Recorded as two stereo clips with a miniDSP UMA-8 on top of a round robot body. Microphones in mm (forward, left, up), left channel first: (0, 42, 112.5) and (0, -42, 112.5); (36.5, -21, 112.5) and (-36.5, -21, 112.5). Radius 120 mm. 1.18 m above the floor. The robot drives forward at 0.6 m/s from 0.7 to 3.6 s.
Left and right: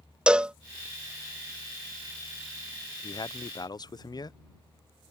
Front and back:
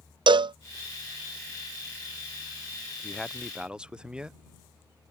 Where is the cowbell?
170° right.